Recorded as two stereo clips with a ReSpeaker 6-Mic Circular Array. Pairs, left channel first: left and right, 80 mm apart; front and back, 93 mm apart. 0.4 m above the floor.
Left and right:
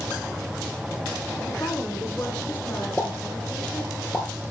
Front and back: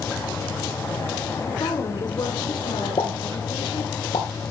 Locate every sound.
1.4 s a woman speaking: 35° left, 5.5 m; by 4.0 s 20° left, 7 m
3.0 s a pop: 20° left, 3.5 m